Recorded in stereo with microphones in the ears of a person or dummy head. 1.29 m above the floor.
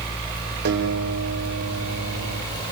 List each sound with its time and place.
0.7 s a guitar: 55° right (ahead or behind), 5.5 m